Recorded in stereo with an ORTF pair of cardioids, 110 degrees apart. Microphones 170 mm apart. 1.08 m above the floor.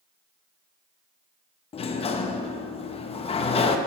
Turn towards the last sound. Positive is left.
turn(degrees=35)